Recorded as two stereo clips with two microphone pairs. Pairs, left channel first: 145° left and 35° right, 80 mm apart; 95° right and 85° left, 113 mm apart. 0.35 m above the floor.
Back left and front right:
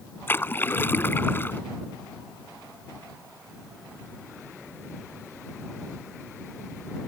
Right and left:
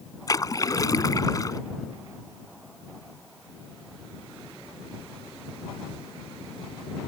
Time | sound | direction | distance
0.3 | a splash | 150° right | ?